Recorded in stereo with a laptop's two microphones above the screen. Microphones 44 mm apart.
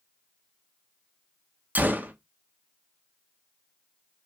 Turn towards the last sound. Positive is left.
turn(degrees=-40)  # may be behind; listen again after turning